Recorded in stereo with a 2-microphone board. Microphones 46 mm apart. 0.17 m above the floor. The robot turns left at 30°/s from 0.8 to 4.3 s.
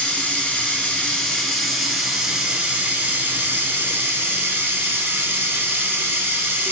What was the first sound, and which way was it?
Running water, 30° left.